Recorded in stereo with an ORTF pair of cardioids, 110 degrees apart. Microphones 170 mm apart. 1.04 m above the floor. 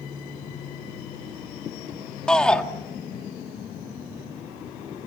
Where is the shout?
5° left, 1.6 m.